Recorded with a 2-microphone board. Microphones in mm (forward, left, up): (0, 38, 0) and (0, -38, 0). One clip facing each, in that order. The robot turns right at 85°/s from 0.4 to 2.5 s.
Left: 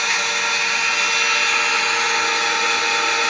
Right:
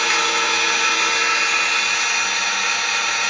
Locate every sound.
0.0 s an engine running: 100° right, 1.2 m; by 3.3 s 80° left, 1.2 m